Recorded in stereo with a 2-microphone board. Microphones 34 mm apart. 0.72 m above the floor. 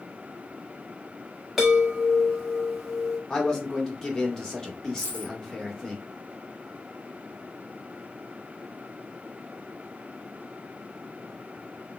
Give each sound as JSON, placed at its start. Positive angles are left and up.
{"t": 1.6, "sound": "a chime", "side_deg": 0, "distance_m": 1.4}
{"t": 3.3, "sound": "a man speaking", "side_deg": 15, "distance_m": 1.4}
{"t": 5.0, "sound": "a dropped coin", "side_deg": -60, "distance_m": 2.0}